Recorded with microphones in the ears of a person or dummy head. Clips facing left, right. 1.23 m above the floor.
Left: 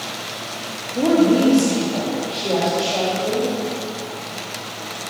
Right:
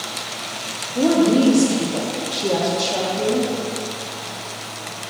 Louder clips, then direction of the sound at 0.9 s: Even; 5° right (ahead or behind).